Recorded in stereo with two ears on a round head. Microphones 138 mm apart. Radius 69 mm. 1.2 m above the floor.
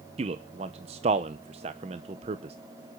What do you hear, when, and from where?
0.2 s a man speaking: 40° right (ahead or behind), 0.7 m